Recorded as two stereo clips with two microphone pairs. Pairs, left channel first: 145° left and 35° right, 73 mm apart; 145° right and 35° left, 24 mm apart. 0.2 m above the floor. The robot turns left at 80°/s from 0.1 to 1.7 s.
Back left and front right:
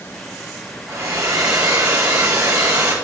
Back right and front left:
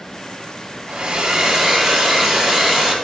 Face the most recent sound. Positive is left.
turn(degrees=-50)